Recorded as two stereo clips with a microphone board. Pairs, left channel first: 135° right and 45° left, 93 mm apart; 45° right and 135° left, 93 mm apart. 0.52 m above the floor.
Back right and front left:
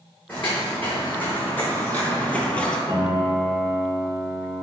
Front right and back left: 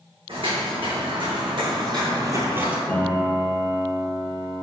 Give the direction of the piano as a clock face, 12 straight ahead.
11 o'clock.